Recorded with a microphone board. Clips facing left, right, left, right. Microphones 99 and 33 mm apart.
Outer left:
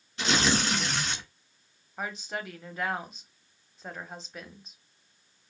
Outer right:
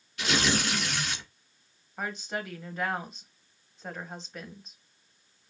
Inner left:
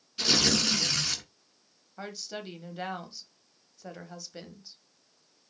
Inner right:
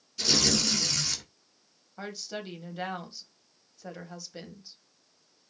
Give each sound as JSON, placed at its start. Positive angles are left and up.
{"t": 0.2, "sound": "tearing paper", "side_deg": 30, "distance_m": 1.5}
{"t": 2.0, "sound": "a woman speaking", "side_deg": 0, "distance_m": 1.0}